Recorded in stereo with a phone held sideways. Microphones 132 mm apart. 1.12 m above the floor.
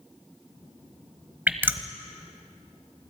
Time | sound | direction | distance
1.5 | dripping | 15° right (ahead or behind) | 1.0 m